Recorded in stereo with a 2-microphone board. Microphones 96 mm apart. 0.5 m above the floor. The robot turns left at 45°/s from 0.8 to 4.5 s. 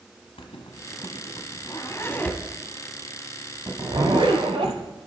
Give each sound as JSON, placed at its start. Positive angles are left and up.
{"t": 0.4, "sound": "a zipper", "side_deg": 85, "distance_m": 1.1}